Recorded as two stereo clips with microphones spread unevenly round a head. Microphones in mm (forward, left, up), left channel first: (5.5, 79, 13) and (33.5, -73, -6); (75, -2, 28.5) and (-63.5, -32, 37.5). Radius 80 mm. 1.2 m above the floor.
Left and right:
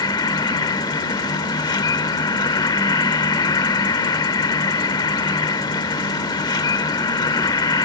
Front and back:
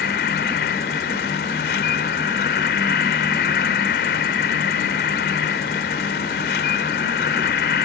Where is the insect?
40° left.